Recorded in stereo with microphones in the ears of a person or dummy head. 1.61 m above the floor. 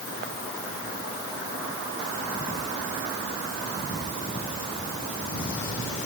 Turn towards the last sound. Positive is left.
No sound to turn to.